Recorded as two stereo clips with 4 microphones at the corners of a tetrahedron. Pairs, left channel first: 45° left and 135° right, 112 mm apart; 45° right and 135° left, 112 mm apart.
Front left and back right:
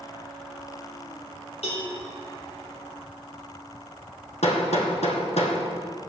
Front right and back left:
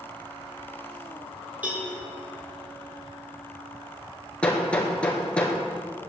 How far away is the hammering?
About 2.5 m.